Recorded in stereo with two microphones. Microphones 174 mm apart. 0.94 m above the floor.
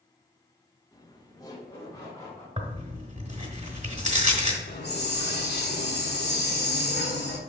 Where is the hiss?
75° left (ahead or behind), 1.2 m.